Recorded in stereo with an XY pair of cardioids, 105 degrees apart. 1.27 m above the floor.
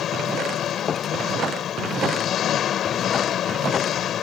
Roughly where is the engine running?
Ahead left.